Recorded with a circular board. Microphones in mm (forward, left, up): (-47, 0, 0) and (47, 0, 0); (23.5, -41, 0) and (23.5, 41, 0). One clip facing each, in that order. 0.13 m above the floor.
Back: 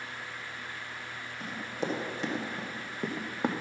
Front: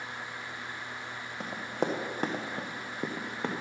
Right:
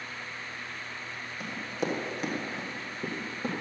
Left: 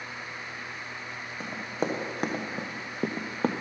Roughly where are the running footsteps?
Ahead left.